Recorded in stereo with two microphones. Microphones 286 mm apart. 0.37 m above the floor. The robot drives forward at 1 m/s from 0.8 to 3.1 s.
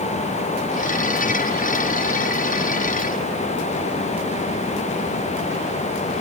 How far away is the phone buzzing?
No phone buzzing in this recording.